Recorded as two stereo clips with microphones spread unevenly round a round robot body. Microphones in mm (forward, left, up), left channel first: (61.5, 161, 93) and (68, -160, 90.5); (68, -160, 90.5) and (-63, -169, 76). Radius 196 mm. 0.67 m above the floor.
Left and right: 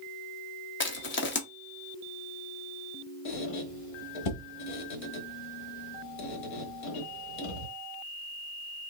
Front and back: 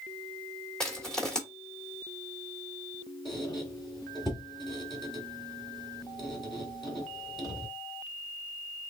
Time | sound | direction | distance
0.8 | crushing | 95° left | 1.1 m
3.2 | a squeak | 85° left | 1.1 m